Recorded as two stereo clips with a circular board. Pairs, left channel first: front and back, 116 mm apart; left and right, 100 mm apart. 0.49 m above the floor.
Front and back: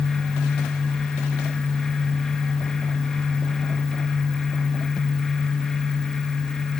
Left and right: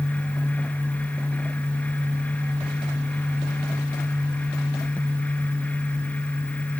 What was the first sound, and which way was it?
Only background noise.